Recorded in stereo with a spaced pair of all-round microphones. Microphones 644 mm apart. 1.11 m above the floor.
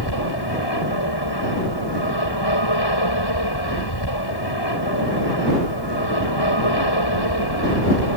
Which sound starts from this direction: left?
An aircraft, at 0.0 s.